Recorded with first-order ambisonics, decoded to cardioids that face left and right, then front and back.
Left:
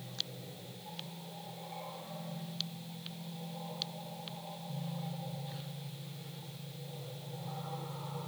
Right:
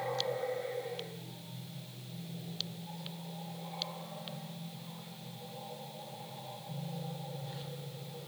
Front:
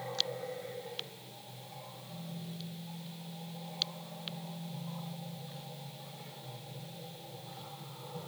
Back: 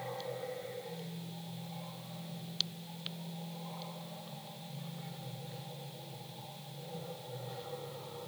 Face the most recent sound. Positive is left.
No sound to turn to.